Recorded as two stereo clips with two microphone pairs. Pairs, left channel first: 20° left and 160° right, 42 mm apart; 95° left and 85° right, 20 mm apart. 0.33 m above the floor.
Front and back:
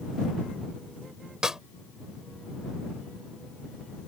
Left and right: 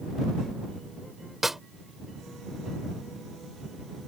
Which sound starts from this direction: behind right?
A snare drum, at 1.4 s.